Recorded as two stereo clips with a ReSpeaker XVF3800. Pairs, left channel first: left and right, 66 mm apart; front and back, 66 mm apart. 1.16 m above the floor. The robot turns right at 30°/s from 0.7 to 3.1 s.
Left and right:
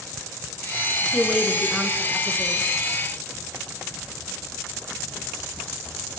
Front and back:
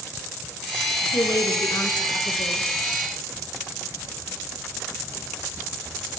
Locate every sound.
1.1 s a woman speaking: straight ahead, 1.2 m; by 2.6 s 45° left, 1.2 m